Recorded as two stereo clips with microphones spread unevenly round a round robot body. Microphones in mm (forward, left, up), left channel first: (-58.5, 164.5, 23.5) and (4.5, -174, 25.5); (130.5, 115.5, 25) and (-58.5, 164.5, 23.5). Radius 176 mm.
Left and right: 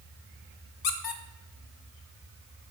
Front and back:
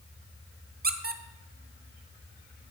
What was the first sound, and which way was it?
A squeak, 125° left.